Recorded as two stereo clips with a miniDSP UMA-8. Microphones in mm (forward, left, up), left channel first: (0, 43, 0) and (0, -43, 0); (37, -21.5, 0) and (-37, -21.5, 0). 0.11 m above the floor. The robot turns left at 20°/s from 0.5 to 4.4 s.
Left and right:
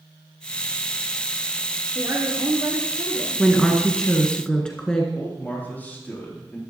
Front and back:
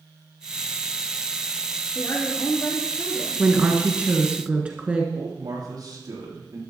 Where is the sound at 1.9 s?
50° right, 3 m; by 3.4 s 80° right, 3 m.